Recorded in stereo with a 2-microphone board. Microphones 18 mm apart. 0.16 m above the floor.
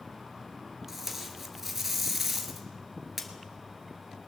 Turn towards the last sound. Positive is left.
turn(degrees=-15)  # may be behind; listen again after turning